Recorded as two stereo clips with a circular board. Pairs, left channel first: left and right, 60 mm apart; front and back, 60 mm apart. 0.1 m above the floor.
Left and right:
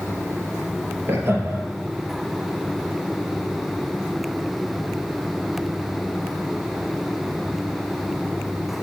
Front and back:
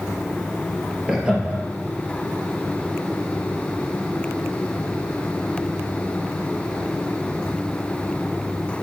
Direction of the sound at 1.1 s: 110° right.